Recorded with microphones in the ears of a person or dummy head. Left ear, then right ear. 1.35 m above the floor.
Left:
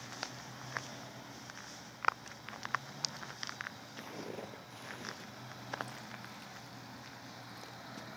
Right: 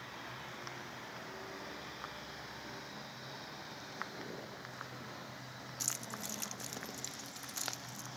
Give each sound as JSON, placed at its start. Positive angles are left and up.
{"t": 4.0, "sound": "footsteps", "side_deg": 55, "distance_m": 2.5}
{"t": 5.8, "sound": "keys jangling", "side_deg": -45, "distance_m": 0.6}